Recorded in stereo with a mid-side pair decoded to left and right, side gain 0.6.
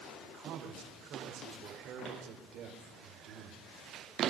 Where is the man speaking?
60° right, 4.5 m.